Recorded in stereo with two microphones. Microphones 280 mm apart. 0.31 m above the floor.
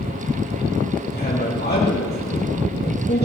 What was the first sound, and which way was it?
A man speaking, 35° left (ahead or behind).